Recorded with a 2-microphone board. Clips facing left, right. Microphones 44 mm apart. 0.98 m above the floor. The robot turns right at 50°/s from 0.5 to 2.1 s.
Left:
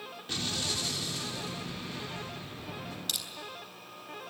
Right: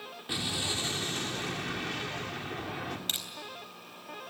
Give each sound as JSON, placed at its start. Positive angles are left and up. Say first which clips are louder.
{"t": 0.3, "sound": "an explosion", "louder": "right 1 dB", "azimuth_deg": -165, "distance_m": 3.0}
{"t": 3.1, "sound": "crushing", "louder": "left 1 dB", "side_deg": -35, "distance_m": 3.5}